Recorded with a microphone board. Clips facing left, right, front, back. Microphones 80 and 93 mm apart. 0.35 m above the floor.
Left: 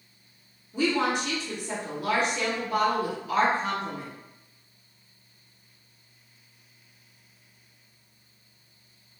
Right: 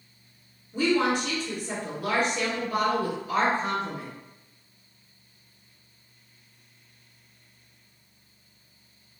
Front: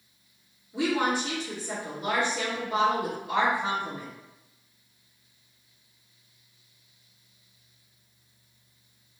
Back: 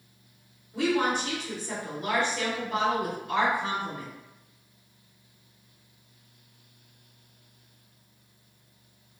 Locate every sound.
0.7 s a woman speaking: 80° right, 1.8 m